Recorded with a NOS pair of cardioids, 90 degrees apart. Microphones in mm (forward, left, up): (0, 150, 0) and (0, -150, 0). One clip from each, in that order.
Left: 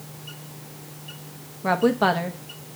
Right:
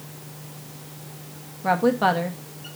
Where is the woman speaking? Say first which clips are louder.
Even; 10° left, 1.0 m.